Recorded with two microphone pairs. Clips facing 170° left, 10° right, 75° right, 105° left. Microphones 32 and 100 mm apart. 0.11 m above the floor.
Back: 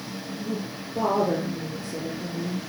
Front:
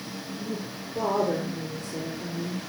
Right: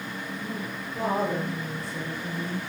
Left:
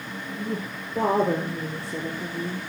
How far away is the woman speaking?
About 3.5 m.